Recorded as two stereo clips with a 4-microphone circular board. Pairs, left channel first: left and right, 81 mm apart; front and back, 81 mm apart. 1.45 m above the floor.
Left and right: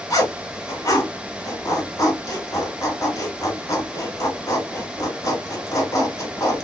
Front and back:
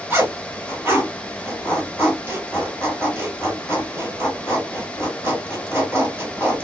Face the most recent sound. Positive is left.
turn(degrees=120)